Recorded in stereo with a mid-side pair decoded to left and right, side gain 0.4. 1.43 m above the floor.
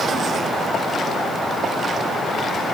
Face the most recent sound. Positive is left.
No sound to turn to.